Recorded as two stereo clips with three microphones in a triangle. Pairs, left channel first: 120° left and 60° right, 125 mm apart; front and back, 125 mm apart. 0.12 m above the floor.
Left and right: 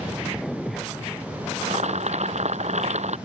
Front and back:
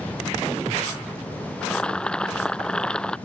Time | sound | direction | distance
1.6 | boiling | 80° right | ?